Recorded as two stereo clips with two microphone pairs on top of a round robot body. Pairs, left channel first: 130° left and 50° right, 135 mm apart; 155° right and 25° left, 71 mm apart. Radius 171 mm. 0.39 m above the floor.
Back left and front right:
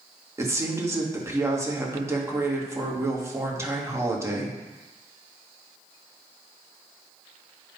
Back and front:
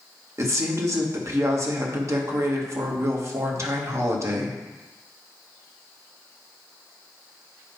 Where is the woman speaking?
10° left, 1.7 m.